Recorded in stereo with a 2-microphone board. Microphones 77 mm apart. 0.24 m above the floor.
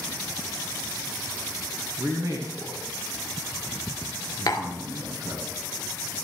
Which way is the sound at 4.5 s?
55° left (ahead or behind).